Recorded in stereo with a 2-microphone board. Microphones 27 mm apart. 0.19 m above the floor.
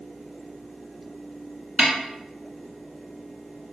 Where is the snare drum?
60° right (ahead or behind), 0.8 m.